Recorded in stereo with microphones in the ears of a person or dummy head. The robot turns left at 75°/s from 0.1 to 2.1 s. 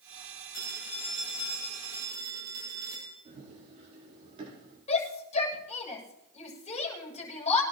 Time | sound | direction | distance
0.5 | a phone ringing | 95° left | 8 m
3.2 | running footsteps | 35° right (ahead or behind) | 10 m
4.9 | a shout | 40° left (ahead or behind) | 7.5 m